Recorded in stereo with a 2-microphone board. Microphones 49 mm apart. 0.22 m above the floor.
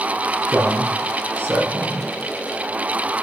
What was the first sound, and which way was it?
A man speaking, 40° right (ahead or behind).